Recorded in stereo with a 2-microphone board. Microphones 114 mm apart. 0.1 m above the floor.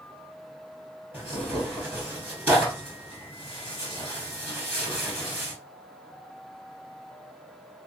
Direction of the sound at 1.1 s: 20° right (ahead or behind).